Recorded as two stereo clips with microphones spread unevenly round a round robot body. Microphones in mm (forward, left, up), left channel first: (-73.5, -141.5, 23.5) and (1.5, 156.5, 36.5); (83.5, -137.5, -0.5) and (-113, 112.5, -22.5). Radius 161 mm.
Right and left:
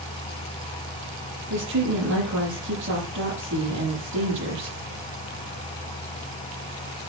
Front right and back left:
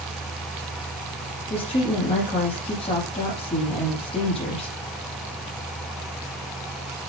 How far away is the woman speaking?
About 9.5 m.